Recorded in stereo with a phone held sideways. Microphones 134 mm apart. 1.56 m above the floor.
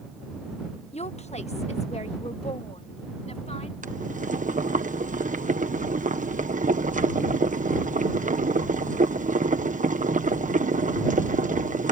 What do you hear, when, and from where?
0.9 s a woman speaking: 55° left (ahead or behind)
3.8 s boiling: 70° right (ahead or behind)